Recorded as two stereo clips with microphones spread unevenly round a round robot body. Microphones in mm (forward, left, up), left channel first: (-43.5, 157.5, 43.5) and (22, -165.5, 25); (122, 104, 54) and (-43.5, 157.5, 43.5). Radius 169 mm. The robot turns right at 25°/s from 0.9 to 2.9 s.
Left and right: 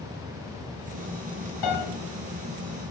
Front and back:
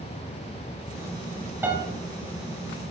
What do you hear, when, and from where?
1.6 s a piano: 85° left, 2.5 m; by 1.9 s 90° left, 2.5 m